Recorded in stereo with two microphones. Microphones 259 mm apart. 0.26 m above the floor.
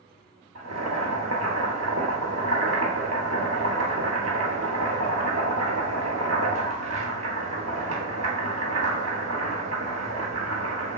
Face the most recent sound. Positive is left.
turn(degrees=-80)